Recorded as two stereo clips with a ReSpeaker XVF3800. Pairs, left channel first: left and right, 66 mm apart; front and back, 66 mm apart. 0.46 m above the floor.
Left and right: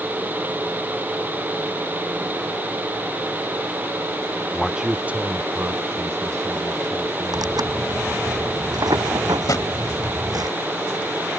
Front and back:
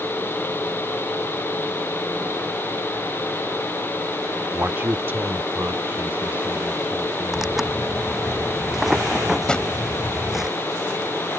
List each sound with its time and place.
4.5 s a man speaking: 175° left; by 7.6 s 115° right
7.3 s tearing paper: 95° right
9.5 s a drawer: 75° left